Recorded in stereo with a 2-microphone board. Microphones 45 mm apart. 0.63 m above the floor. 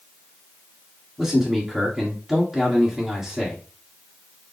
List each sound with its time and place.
1.2 s a man speaking: 10° right (ahead or behind), 1.6 m